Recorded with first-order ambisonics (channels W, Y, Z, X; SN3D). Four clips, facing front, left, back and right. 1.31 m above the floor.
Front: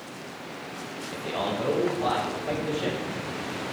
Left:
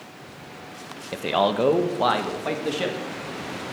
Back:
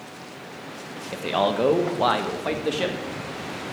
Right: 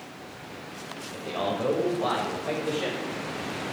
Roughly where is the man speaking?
Behind left.